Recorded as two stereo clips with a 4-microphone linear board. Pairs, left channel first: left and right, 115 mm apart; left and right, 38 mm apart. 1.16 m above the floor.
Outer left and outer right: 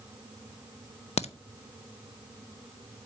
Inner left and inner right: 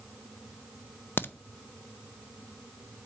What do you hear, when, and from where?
1.2 s a crack: 70° left (ahead or behind), 0.6 m